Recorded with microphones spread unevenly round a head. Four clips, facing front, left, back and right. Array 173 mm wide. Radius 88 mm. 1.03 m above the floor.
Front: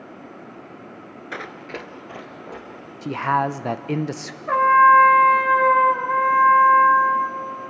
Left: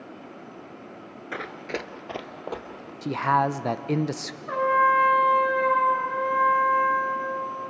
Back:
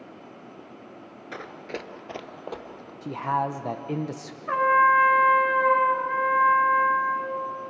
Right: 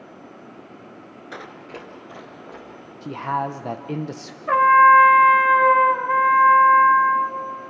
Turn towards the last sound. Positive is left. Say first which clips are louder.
# right 8 dB, front 6 dB
turn(degrees=-60)